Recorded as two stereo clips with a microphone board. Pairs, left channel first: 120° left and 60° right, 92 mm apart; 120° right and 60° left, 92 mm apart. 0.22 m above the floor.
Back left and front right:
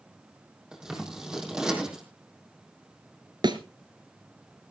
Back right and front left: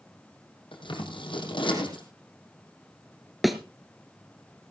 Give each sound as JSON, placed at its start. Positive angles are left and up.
{"t": 0.7, "sound": "scissors", "azimuth_deg": -145, "distance_m": 5.0}
{"t": 3.4, "sound": "a thud", "azimuth_deg": -30, "distance_m": 1.6}